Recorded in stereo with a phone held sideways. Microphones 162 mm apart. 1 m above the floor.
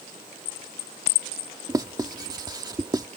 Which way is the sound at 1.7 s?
25° right (ahead or behind).